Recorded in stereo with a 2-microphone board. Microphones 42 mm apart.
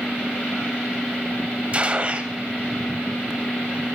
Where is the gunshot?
30° right (ahead or behind), 0.7 m.